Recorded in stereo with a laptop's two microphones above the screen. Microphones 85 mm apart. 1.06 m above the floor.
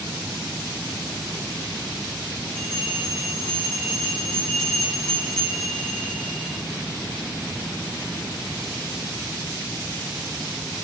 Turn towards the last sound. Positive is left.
turn(degrees=10)  # may be behind; listen again after turning